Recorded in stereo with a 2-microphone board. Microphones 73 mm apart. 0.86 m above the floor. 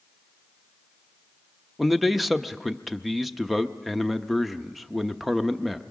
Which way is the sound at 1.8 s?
Centre (ahead or behind).